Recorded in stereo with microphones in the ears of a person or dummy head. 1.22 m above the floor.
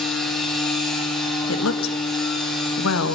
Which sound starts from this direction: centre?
A machine running, at 0.0 s.